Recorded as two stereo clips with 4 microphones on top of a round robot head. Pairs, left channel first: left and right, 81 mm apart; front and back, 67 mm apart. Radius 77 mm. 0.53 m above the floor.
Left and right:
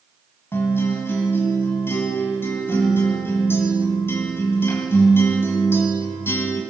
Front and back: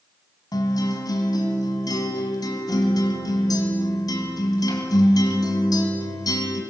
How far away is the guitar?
About 3.5 m.